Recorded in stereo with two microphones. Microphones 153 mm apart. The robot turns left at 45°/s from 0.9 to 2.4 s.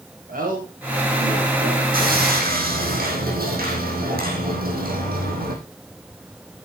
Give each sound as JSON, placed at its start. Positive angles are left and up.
{"t": 0.3, "sound": "a man speaking", "side_deg": -65, "distance_m": 5.5}
{"t": 1.9, "sound": "sawing", "side_deg": -70, "distance_m": 5.0}